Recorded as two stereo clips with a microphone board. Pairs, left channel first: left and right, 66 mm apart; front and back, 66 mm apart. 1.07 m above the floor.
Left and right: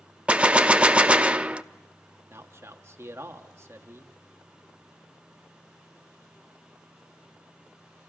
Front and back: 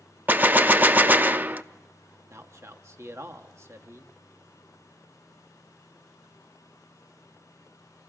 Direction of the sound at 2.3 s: 135° right.